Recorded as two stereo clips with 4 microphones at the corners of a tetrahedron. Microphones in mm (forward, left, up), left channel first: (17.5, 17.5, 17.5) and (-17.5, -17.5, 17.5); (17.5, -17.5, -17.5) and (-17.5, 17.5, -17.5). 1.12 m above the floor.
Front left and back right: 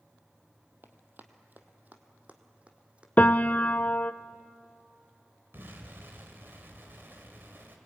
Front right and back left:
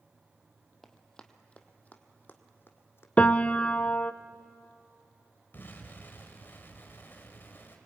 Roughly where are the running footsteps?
Behind right.